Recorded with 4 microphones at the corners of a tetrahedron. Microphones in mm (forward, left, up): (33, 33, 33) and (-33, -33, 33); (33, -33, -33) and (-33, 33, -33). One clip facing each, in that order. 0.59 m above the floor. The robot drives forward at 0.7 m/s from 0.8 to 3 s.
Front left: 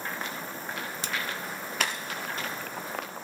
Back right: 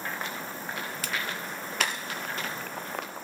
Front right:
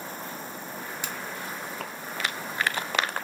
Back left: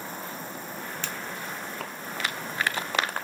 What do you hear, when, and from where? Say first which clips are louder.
1.0 s a finger snap: even, even; 10° left, 0.5 m; by 1.1 s 15° left, 0.5 m